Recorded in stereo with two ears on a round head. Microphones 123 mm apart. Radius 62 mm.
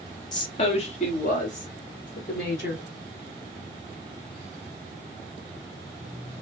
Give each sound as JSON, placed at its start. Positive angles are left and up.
{"t": 0.3, "sound": "a woman speaking", "side_deg": 30, "distance_m": 1.3}